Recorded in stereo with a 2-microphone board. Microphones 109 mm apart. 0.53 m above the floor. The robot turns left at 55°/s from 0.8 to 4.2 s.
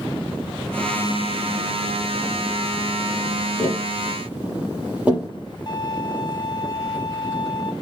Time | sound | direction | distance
3.6 | tapping | 25° left (ahead or behind) | 7.5 m
5.7 | a violin | 40° left (ahead or behind) | 2.5 m